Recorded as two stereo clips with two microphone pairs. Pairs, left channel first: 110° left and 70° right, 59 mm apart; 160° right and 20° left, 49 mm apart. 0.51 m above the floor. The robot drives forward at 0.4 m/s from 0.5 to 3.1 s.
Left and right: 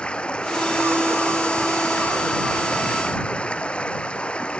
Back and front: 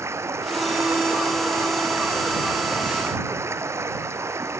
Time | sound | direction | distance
0.0 | running water | 35° left | ?